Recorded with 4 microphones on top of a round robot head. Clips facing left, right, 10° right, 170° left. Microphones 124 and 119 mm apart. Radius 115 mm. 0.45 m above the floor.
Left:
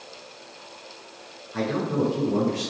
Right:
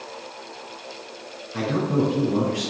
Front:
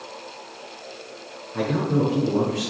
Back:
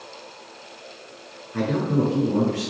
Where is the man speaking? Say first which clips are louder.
Right 2 dB, even; 175° right, 9 m.